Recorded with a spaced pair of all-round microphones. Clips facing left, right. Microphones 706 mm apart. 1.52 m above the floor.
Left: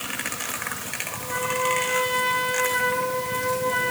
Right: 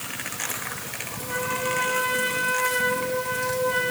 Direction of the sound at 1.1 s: 25° right (ahead or behind).